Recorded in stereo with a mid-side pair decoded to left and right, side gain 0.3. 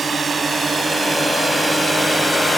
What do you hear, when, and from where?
0.0 s a drone: 55° right; by 2.6 s 30° right